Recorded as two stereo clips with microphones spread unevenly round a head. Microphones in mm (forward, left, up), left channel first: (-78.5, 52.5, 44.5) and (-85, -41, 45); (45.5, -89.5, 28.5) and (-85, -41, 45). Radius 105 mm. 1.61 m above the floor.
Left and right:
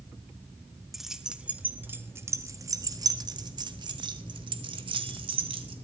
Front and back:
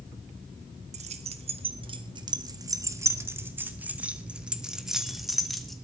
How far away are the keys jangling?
About 1.5 m.